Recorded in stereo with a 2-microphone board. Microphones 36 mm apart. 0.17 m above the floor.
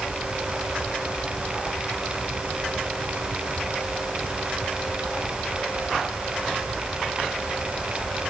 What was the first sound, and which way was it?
Only background noise.